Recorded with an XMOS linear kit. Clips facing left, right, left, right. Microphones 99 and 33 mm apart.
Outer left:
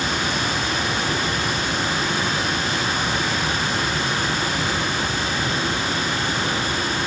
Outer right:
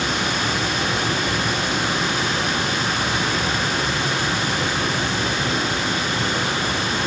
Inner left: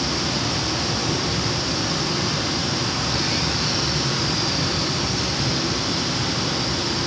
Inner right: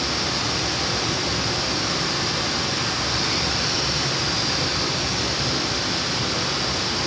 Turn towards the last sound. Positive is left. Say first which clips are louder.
# outer right 1 dB, even
turn(degrees=-65)  # may be behind; listen again after turning